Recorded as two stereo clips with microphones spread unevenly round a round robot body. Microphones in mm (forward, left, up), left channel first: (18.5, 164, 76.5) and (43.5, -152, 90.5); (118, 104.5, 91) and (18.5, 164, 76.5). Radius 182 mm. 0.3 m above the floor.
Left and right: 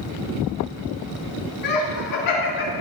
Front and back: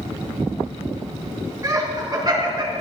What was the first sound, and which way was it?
Laughter, 90° left.